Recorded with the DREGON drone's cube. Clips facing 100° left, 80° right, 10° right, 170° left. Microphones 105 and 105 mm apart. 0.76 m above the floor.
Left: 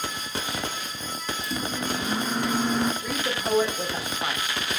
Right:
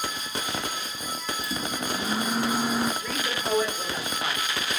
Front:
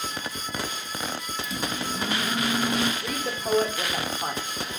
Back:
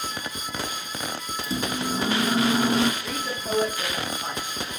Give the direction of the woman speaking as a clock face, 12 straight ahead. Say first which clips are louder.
Left 2 dB, front 1 dB; 11 o'clock.